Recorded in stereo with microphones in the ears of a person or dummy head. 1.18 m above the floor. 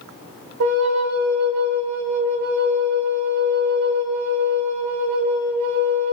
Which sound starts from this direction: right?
A flute, at 0.6 s.